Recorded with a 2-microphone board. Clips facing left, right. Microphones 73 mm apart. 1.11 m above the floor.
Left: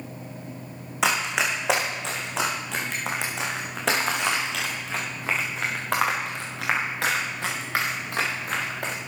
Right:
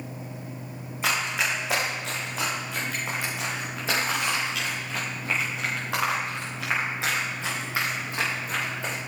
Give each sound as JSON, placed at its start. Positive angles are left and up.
{"t": 1.0, "sound": "running footsteps", "side_deg": 70, "distance_m": 3.5}